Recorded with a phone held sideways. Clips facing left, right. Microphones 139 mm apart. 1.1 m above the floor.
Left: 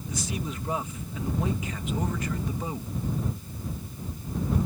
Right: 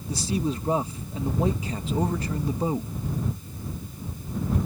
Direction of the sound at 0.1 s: 30° right (ahead or behind).